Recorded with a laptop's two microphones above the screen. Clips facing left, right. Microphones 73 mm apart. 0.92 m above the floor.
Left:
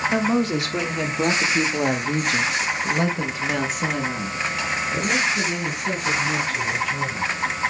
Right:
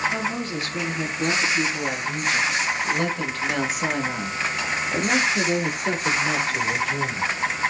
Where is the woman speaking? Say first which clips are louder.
Left 6 dB; 80° left, 2.5 m; by 7.3 s 50° right (ahead or behind), 3 m.